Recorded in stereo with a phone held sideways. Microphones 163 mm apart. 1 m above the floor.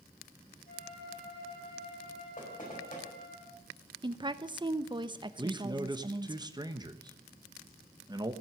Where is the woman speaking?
30° right (ahead or behind), 0.8 m.